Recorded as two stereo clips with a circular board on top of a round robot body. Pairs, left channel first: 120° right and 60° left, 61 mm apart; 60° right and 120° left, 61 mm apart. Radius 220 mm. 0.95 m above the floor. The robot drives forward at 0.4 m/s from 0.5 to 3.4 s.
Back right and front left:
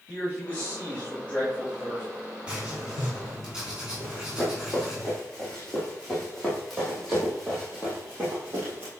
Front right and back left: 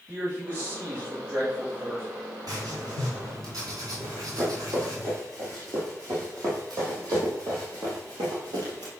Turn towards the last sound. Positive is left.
turn(degrees=125)